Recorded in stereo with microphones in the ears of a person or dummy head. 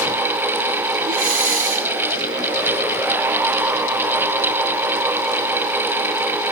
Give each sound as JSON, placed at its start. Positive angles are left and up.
{"t": 1.1, "sound": "breathing", "side_deg": -45, "distance_m": 2.0}